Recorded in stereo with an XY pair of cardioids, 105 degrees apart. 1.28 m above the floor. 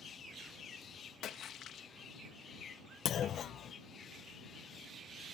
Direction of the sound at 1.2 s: 70° left.